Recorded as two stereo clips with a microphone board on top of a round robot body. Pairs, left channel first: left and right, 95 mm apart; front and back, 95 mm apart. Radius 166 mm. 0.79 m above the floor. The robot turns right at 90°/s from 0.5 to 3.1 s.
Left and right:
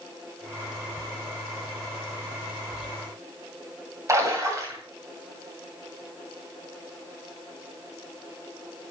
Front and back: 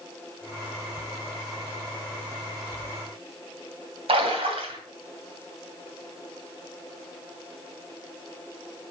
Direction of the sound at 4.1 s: 150° right.